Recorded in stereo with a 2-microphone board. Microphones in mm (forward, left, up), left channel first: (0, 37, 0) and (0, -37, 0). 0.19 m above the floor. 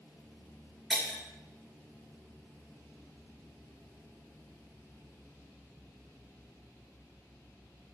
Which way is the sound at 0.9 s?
5° right (ahead or behind).